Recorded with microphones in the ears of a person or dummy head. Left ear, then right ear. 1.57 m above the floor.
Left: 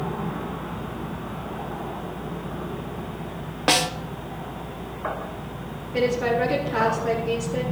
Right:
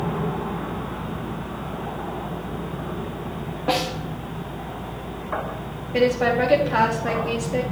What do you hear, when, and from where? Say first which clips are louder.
3.7 s a snare drum: left 3 dB; 55° left (ahead or behind), 1.3 m
5.9 s a woman speaking: right 3 dB; 35° right (ahead or behind), 3.5 m